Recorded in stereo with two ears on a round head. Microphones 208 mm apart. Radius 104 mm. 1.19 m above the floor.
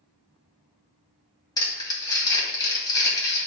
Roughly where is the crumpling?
Centre.